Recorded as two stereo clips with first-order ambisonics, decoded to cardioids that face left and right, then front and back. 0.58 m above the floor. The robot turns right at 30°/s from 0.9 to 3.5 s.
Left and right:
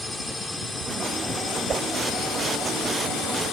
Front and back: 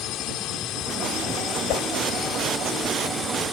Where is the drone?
5° left; by 3.5 s 85° left.